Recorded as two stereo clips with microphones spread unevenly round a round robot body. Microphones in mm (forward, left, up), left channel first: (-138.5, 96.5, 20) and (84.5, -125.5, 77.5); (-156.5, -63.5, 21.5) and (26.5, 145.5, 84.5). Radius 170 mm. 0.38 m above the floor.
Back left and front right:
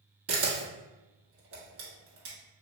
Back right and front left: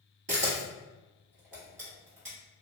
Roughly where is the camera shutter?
Ahead.